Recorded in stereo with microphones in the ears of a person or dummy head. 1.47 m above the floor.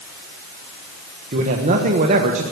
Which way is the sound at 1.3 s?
40° right (ahead or behind).